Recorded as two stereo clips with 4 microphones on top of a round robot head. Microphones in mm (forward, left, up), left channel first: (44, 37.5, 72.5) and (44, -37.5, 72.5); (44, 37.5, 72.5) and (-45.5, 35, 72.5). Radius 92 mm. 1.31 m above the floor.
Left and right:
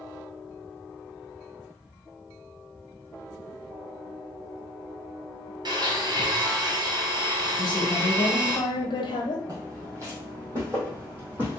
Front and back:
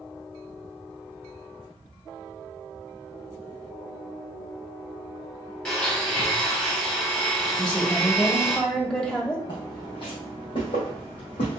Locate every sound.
5.7 s a blender: 80° right, 1.3 m
7.6 s a woman speaking: 85° left, 1.3 m
9.5 s footsteps: 50° right, 2.5 m; by 11.6 s 25° right, 3 m